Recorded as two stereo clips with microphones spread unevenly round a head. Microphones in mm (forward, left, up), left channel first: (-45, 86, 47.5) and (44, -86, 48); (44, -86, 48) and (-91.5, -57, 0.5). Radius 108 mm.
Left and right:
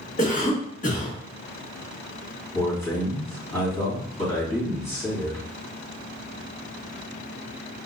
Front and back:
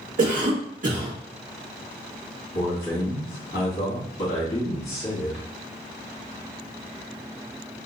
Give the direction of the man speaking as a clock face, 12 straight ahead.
11 o'clock.